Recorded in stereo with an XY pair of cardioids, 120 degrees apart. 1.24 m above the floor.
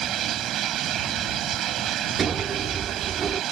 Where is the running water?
60° right.